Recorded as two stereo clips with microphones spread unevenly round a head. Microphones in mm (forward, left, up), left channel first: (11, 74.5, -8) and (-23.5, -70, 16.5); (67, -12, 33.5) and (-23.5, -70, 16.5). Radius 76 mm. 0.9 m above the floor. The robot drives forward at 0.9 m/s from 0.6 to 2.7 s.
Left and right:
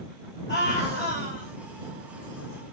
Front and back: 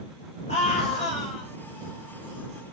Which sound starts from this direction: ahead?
A scream, at 0.5 s.